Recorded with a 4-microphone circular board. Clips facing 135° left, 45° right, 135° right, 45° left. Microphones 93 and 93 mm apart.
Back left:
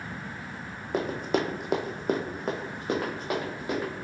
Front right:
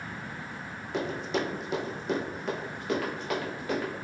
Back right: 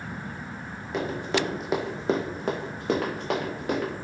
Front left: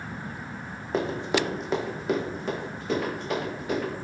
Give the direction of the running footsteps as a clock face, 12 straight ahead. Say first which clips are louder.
Back left 3 dB, front left 1 dB; 9 o'clock.